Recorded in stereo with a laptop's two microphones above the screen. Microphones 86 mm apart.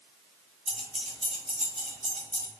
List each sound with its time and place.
0.7 s keys jangling: centre (ahead or behind), 0.5 m; by 2.5 s 10° left (ahead or behind), 1.5 m